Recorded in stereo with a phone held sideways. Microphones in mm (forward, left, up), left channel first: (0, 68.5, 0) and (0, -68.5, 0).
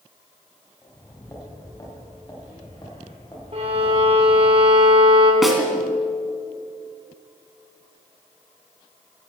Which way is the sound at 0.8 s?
20° left (ahead or behind).